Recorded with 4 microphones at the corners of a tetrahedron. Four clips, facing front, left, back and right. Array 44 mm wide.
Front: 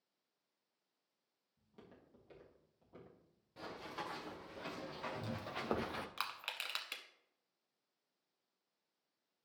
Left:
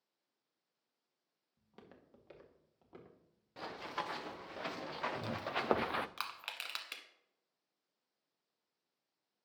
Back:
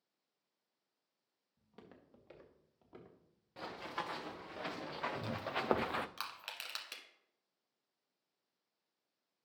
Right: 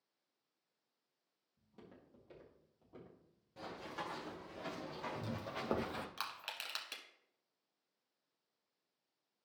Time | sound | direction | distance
1.6 | footsteps | 125° left | 3 m
3.6 | running footsteps | 125° left | 1.9 m
6.2 | crushing | 40° left | 1.0 m